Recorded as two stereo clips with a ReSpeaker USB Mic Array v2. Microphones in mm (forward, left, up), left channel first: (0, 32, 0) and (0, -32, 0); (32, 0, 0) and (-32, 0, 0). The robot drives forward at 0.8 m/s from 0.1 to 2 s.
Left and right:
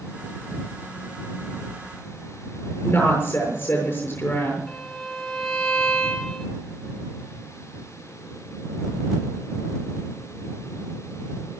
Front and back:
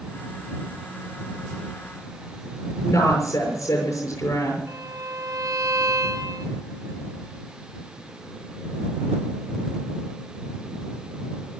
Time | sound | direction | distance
2.8 | a woman speaking | 25° left | 6.5 m
4.7 | a violin | 170° left | 3 m